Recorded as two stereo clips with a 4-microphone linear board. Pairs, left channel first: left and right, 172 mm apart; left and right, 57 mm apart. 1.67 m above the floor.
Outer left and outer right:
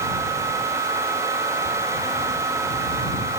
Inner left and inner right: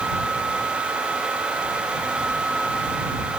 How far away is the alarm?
I don't hear an alarm.